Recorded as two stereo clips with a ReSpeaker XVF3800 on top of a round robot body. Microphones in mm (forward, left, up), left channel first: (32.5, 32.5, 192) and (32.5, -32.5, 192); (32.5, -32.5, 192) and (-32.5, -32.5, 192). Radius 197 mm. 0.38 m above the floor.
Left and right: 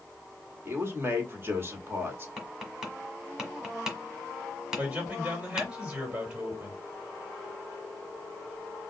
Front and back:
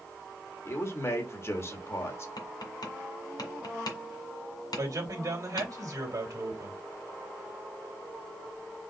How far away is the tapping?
About 1.5 m.